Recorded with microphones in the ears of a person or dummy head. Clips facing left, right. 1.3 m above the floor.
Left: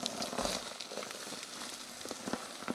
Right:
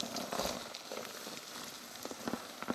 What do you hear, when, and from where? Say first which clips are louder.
0.4 s a sliding door: left 3 dB; 25° left (ahead or behind), 4.5 m